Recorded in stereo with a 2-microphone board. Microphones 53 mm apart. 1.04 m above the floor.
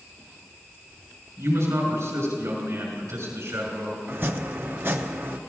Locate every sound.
1.4 s a man speaking: 80° right, 5.5 m
4.1 s chopping: 45° right (ahead or behind), 0.7 m